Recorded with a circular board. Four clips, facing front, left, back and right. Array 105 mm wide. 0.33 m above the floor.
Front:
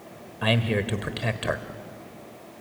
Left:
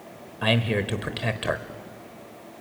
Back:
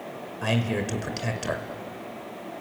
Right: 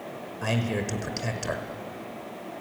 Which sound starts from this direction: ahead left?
A man speaking, at 0.4 s.